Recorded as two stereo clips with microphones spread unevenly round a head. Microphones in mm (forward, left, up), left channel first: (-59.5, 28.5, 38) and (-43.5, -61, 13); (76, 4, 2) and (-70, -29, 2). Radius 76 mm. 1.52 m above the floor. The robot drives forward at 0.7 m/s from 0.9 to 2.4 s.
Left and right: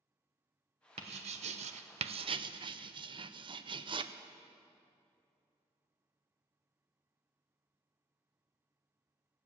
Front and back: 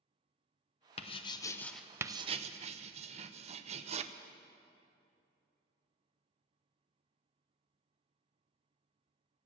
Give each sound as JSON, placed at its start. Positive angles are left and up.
{"t": 1.0, "sound": "writing", "azimuth_deg": -40, "distance_m": 0.9}